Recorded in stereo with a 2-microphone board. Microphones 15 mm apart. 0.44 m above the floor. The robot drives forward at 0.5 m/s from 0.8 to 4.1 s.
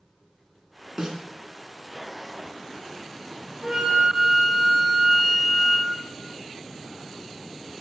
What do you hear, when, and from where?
1.0 s a snare drum: 50° right (ahead or behind), 1.3 m; by 1.2 s 45° right (ahead or behind), 1.3 m
3.6 s a flute: 40° right (ahead or behind), 1.6 m; by 5.9 s 45° right (ahead or behind), 1.5 m